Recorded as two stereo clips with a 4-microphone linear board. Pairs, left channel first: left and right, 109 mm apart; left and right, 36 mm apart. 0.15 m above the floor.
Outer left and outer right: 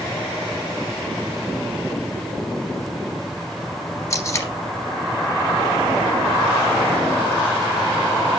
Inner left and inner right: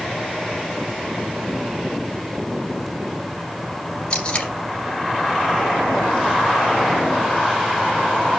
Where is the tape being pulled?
30° left (ahead or behind), 2.5 m.